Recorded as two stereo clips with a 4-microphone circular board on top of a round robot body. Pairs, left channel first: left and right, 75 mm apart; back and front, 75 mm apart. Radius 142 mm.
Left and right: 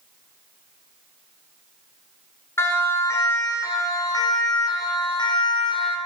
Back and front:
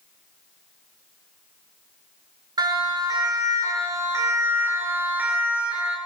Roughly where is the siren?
Ahead left.